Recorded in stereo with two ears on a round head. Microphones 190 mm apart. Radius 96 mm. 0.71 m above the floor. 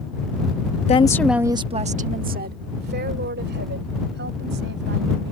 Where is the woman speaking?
30° left (ahead or behind); by 5.3 s 60° right (ahead or behind).